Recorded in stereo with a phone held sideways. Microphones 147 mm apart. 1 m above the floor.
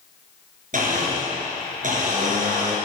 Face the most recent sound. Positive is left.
turn(degrees=-65)  # may be behind; listen again after turning